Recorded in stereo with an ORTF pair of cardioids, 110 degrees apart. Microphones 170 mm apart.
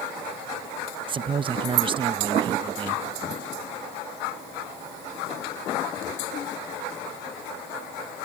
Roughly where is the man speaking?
Ahead right.